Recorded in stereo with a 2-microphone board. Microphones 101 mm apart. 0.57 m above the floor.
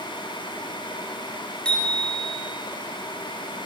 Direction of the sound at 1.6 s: 10° left (ahead or behind).